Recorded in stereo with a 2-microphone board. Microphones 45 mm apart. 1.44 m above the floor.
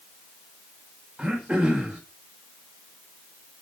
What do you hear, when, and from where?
1.2 s throat clearing: 20° right (ahead or behind), 4 m